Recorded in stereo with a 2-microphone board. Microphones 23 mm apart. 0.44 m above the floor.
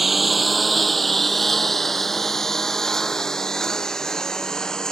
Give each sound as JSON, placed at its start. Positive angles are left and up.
{"t": 0.0, "sound": "a lawn mower", "side_deg": -5}